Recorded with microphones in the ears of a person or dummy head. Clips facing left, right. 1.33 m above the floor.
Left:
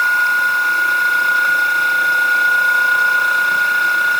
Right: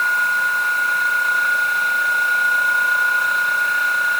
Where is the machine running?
45° left (ahead or behind).